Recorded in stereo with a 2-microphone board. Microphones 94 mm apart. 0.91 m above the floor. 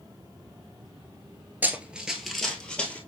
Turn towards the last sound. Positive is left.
turn(degrees=15)  # may be behind; listen again after turning